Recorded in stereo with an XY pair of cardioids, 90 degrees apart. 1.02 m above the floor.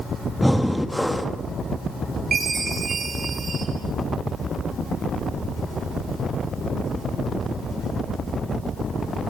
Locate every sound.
0.4 s breathing: 5° left, 1.5 m
2.3 s a chime: 50° right, 8.5 m